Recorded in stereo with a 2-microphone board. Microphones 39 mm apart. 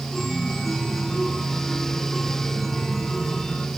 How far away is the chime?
About 3 m.